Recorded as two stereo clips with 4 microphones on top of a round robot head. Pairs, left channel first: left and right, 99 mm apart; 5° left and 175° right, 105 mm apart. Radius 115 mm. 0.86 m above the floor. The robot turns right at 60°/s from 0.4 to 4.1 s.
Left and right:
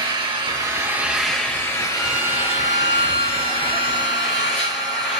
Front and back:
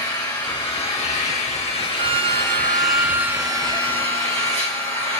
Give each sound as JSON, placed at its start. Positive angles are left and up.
{"t": 0.0, "sound": "an engine running", "azimuth_deg": -50, "distance_m": 2.5}
{"t": 1.9, "sound": "a violin", "azimuth_deg": 180, "distance_m": 0.6}